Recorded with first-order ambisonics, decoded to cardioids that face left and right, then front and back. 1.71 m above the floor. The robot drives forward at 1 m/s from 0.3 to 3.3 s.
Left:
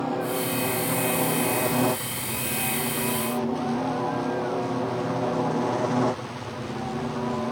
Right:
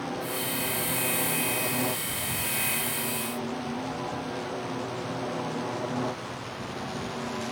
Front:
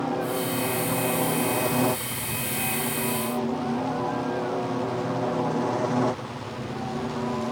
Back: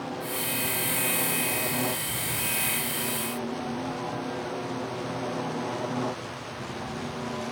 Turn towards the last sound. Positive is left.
turn(degrees=50)